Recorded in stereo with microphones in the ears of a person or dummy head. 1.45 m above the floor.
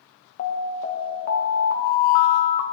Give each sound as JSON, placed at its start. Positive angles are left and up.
{"t": 0.4, "sound": "an alarm", "side_deg": 45, "distance_m": 2.0}